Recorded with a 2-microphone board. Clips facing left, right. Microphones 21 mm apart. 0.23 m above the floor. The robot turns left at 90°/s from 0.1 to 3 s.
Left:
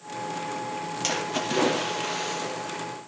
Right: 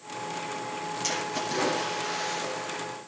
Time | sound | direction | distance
1.0 | a splash | 145° left | 6 m